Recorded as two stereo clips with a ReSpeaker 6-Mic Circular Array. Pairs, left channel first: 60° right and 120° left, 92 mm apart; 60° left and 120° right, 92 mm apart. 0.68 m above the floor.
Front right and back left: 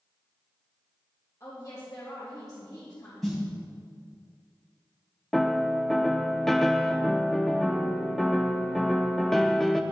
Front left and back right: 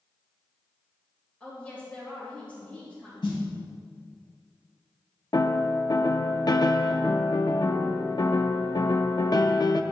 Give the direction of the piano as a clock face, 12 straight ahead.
11 o'clock.